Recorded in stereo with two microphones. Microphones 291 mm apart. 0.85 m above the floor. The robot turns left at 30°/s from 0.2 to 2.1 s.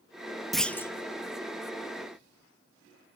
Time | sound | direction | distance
0.5 | a clunk | centre (ahead or behind) | 0.6 m